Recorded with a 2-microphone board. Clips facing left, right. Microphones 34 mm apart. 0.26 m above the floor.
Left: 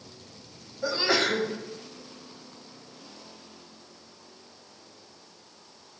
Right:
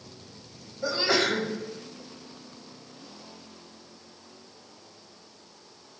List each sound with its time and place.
0.8 s a sneeze: centre (ahead or behind), 0.9 m